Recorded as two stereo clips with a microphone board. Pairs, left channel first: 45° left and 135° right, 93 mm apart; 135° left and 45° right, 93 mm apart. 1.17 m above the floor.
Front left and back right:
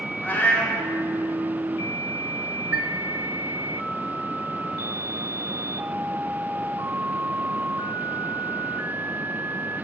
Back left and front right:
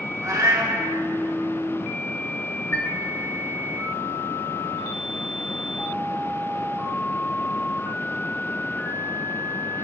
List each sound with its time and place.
0.2 s a cat meowing: 15° right, 0.8 m
2.7 s a chime: 165° left, 0.5 m